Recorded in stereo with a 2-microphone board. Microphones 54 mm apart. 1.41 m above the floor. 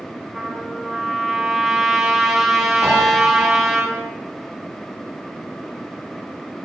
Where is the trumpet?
10° right (ahead or behind), 6 m.